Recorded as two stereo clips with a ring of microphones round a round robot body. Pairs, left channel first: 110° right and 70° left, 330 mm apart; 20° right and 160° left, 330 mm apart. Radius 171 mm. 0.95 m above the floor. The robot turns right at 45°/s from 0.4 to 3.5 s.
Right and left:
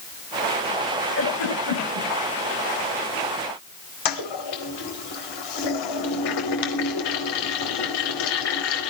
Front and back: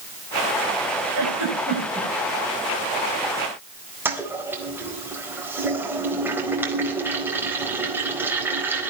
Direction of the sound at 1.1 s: 170° right.